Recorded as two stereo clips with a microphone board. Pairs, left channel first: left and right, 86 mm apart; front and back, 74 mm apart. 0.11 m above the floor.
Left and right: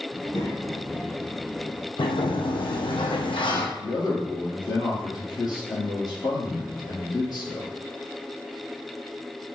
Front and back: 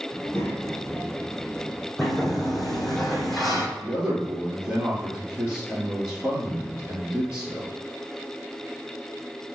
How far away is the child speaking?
About 1.4 m.